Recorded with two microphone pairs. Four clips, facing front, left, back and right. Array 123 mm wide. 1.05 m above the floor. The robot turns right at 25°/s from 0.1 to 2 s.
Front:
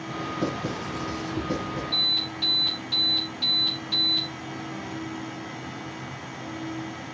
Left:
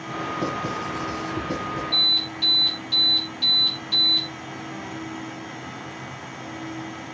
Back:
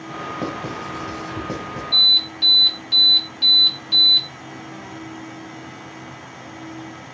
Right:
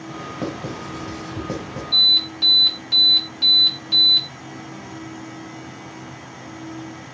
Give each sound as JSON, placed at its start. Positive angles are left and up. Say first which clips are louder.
{"t": 0.4, "sound": "writing", "louder": "even, back 1 dB", "azimuth_deg": 170, "distance_m": 1.3}
{"t": 1.9, "sound": "an alarm", "louder": "even, back 2 dB", "azimuth_deg": -105, "distance_m": 2.0}